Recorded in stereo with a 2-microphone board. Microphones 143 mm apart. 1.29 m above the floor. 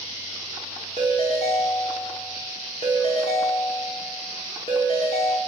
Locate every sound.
1.0 s a ringtone: 45° left (ahead or behind), 1.6 m